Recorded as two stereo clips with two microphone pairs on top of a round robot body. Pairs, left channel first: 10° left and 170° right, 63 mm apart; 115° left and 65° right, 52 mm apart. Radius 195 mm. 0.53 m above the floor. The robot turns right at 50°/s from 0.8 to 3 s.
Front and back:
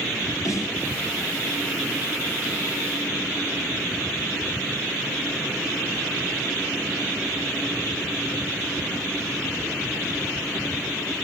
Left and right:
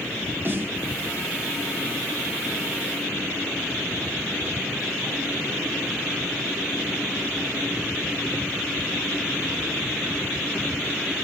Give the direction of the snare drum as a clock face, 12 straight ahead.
1 o'clock.